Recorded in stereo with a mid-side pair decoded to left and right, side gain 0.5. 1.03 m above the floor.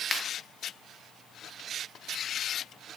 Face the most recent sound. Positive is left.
turn(degrees=30)